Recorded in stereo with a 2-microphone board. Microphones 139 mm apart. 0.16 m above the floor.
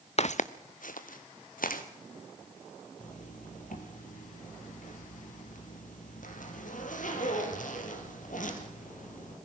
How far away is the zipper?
About 3 m.